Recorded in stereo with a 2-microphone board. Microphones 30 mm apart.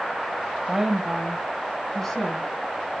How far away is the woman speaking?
About 1.0 m.